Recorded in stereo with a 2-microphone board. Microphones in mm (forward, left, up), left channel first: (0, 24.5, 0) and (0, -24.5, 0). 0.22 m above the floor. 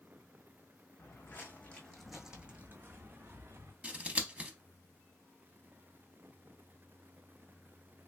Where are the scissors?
25° right (ahead or behind), 0.6 m.